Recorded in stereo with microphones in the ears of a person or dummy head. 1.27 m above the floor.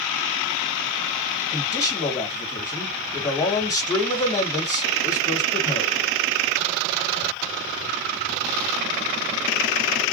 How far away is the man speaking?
About 1.5 m.